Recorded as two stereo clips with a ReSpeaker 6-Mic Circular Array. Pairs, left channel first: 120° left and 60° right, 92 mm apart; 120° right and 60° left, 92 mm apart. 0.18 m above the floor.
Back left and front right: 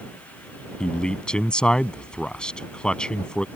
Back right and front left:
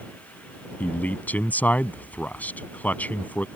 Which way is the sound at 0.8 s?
170° right.